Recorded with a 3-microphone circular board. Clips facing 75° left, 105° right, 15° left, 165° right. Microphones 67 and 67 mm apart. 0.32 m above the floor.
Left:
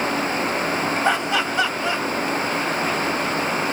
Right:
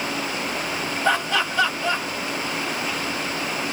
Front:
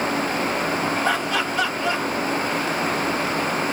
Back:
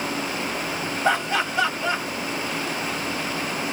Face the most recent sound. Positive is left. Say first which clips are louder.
# right 3 dB, even
turn(degrees=140)